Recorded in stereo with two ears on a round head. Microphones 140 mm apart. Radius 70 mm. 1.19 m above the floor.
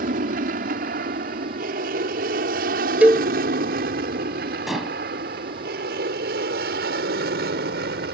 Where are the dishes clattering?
Centre (ahead or behind).